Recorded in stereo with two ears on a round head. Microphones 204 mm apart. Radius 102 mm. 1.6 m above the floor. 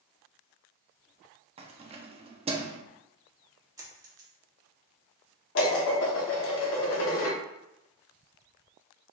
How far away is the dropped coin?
About 1.3 m.